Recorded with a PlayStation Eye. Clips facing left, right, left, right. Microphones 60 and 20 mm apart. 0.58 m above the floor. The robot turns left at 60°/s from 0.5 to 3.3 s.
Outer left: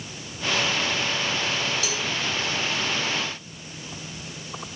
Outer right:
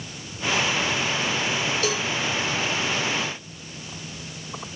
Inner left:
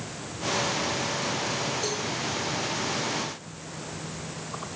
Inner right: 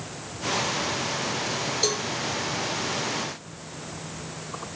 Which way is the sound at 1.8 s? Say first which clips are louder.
Outer right 4 dB, inner right 4 dB; 45° right (ahead or behind).